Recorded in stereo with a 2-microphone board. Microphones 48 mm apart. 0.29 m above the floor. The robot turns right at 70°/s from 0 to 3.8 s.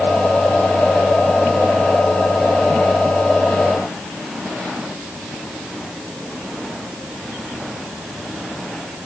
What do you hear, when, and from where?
Only background noise.